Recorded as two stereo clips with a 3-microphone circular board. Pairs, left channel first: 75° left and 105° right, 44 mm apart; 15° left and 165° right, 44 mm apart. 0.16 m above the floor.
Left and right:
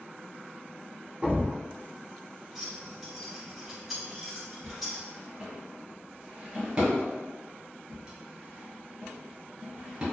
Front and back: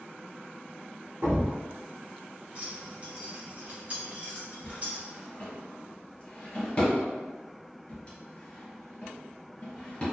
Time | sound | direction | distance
1.2 | a thud | 160° right | 0.6 m
2.5 | keys jangling | 170° left | 1.2 m
4.6 | a drawer | 45° right | 1.5 m